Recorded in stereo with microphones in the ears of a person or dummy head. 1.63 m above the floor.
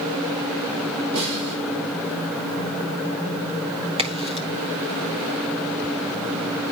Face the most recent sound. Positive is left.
turn(degrees=-25)  # may be behind; listen again after turning